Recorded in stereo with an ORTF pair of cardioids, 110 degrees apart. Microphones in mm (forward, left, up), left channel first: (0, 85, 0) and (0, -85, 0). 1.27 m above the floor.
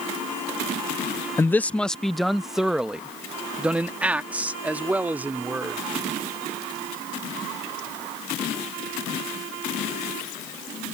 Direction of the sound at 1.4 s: 15° left.